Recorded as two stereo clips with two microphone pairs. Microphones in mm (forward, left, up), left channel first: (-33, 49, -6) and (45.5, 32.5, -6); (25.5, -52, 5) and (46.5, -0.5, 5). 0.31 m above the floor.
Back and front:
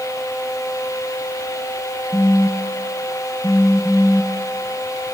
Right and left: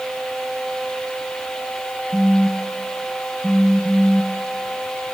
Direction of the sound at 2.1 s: 140° left.